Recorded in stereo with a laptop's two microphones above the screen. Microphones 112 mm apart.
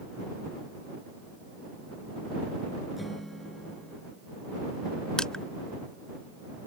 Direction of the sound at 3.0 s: Centre (ahead or behind).